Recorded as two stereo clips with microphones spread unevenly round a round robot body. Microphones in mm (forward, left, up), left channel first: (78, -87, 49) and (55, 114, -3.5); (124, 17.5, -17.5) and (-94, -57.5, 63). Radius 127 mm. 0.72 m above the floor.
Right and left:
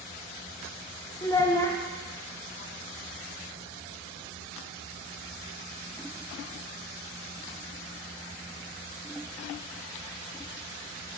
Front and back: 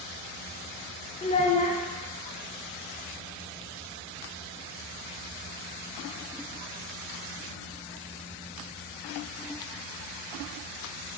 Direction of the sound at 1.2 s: 5° left.